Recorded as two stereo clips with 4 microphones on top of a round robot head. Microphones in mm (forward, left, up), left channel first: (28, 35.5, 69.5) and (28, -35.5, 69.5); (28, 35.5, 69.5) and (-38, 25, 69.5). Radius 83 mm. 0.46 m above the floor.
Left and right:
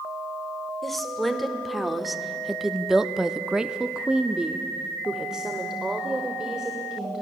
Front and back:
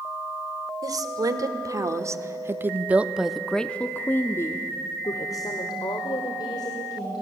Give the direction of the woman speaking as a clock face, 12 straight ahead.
6 o'clock.